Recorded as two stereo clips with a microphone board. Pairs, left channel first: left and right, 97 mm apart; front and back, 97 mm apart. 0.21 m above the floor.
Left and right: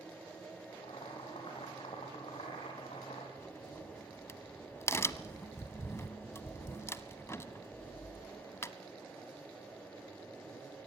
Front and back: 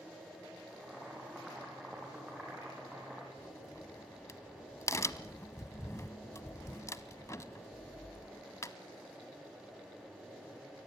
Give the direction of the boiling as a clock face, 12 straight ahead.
9 o'clock.